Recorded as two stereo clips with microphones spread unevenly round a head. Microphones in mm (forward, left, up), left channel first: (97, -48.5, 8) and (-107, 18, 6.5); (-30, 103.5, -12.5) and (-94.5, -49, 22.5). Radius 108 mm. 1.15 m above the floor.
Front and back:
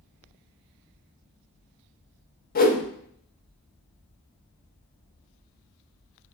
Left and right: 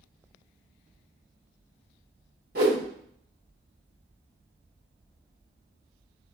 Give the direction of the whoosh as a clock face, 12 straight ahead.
2 o'clock.